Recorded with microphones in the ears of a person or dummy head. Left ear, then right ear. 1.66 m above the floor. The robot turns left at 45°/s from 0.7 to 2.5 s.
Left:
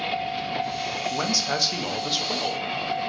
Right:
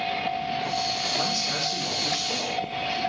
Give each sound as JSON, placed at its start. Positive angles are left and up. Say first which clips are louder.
{"t": 1.1, "sound": "a man speaking", "louder": "left 1 dB", "azimuth_deg": 95, "distance_m": 0.5}